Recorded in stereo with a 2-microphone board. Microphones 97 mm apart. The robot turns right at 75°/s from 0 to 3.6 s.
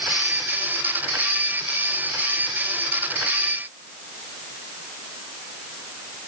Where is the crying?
I don't hear crying.